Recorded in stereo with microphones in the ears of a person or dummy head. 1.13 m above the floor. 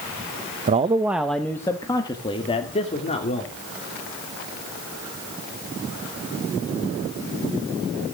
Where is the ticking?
No ticking in this recording.